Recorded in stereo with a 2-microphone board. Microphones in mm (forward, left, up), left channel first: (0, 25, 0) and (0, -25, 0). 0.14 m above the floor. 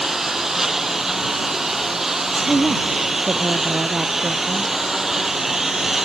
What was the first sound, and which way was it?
A lawn mower, 5° right (ahead or behind).